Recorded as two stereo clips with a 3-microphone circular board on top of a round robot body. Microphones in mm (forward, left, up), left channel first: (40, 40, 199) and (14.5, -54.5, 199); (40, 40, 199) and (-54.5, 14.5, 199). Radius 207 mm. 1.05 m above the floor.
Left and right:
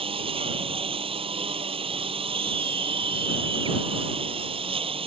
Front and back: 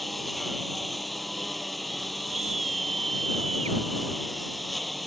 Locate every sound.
0.0 s a lawn mower: 75° right
2.3 s a scream: 150° right